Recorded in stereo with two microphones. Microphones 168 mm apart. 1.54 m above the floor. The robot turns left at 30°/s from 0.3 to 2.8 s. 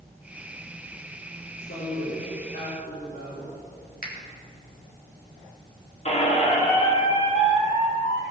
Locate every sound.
1.6 s a woman speaking: 105° left, 3.5 m; by 3.6 s 70° left, 3.5 m
4.0 s a finger snap: 60° left (ahead or behind), 2.5 m
6.0 s a squeak: 40° left (ahead or behind), 1.6 m